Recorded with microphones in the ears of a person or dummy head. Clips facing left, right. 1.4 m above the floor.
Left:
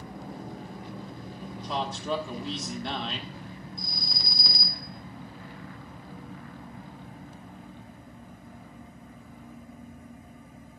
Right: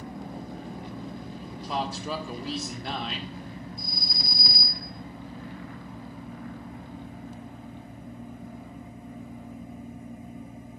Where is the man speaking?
10° right (ahead or behind), 1.3 m.